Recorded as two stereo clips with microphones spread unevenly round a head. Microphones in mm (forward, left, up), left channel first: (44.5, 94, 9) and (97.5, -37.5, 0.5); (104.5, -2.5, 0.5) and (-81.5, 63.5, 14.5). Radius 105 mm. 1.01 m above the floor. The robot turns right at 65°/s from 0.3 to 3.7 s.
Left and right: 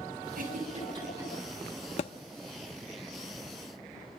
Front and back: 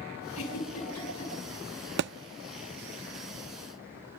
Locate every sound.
0.3 s a giggle: 50° right, 7 m; by 1.3 s 15° left, 7 m
2.0 s a thud: 155° left, 0.5 m; by 2.1 s 165° left, 0.5 m